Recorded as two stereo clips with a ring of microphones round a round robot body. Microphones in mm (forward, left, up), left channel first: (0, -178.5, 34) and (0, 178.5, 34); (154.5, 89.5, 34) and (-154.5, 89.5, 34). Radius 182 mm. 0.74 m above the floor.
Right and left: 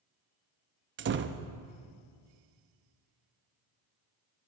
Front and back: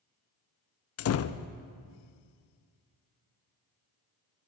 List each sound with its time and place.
1.0 s a door slam: 35° left, 0.5 m